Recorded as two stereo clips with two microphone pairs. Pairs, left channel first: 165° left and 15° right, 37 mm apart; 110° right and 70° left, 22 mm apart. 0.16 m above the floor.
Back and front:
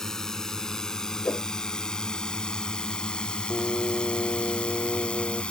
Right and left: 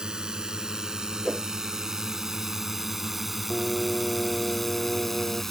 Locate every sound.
0.0 s a drone: 90° left; by 5.5 s 170° right
1.2 s a whoosh: 175° left
3.5 s singing: 75° left